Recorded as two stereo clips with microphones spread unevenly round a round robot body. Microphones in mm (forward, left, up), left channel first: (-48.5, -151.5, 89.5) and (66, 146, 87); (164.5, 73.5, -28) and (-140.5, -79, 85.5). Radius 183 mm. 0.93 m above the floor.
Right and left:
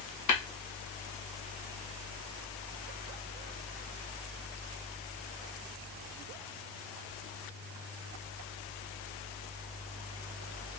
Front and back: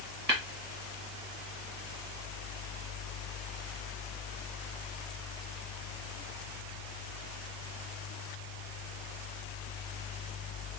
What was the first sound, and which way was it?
Tapping, 85° right.